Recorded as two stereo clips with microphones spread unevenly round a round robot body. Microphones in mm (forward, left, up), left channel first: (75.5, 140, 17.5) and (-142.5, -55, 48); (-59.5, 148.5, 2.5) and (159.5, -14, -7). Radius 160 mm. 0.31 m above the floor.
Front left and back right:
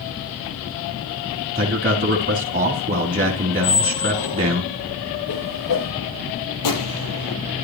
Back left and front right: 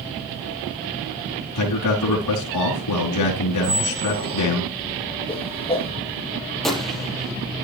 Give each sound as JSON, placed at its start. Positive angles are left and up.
{"t": 1.6, "sound": "a man speaking", "azimuth_deg": 155, "distance_m": 3.5}
{"t": 3.6, "sound": "a squeak", "azimuth_deg": 5, "distance_m": 4.5}
{"t": 5.3, "sound": "a whoosh", "azimuth_deg": 75, "distance_m": 4.0}
{"t": 6.6, "sound": "a gunshot", "azimuth_deg": 55, "distance_m": 4.5}